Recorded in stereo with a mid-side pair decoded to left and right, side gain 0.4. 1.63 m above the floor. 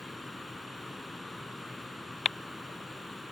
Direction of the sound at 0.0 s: 5° left.